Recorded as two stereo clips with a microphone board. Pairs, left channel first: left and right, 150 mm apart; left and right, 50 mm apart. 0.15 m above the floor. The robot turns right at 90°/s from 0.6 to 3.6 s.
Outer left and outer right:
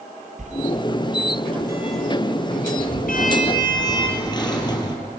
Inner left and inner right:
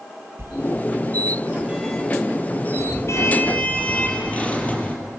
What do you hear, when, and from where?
0.4 s a sliding door: 55° right (ahead or behind), 3 m; by 5.0 s 30° left (ahead or behind), 3 m